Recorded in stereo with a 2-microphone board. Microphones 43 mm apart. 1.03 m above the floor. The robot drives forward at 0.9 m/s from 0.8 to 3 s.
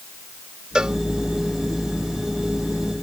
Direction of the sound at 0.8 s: 20° right (ahead or behind).